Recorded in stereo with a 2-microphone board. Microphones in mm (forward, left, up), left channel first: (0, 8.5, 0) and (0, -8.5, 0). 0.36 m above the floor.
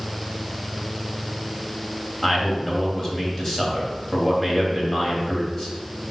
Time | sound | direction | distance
2.2 | a man speaking | 30° left (ahead or behind) | 2.5 m